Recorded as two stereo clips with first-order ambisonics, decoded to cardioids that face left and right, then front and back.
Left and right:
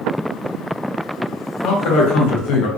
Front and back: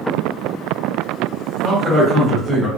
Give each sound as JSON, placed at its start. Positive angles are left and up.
{"t": 1.6, "sound": "a man speaking", "azimuth_deg": 95, "distance_m": 1.6}